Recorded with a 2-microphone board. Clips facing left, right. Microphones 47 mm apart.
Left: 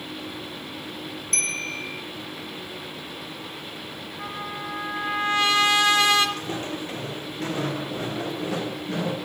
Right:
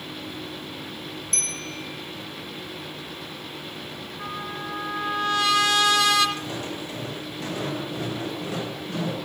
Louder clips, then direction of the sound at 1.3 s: Left 7 dB; 45° left (ahead or behind).